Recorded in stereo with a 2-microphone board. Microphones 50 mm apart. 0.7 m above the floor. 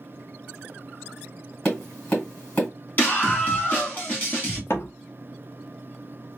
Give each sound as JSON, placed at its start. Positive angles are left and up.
{"t": 1.6, "sound": "tapping", "side_deg": 25, "distance_m": 2.0}
{"t": 3.0, "sound": "a scream", "side_deg": 35, "distance_m": 1.7}
{"t": 4.7, "sound": "a door slam", "side_deg": 60, "distance_m": 0.9}